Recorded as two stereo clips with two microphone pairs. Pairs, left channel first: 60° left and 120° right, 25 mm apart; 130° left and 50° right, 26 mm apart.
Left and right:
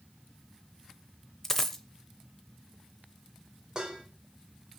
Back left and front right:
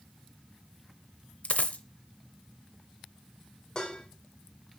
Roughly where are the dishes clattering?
Behind.